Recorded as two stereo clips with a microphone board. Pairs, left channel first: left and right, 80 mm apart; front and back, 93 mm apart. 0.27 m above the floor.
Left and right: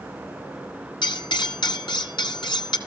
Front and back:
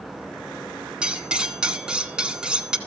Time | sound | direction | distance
1.0 | cutlery clinking | 100° left | 1.4 m